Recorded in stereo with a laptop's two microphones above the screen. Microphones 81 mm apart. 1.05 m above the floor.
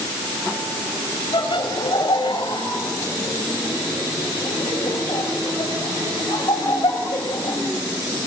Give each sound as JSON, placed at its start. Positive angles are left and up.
{"t": 1.3, "sound": "laughter", "side_deg": 75, "distance_m": 7.5}